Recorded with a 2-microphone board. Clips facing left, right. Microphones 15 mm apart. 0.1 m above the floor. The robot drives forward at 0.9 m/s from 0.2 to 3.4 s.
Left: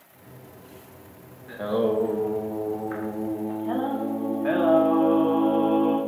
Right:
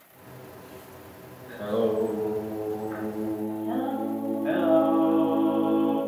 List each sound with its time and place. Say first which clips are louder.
1.5 s singing: left 2 dB; 40° left (ahead or behind), 3.5 m; by 6.0 s 60° left (ahead or behind), 2.5 m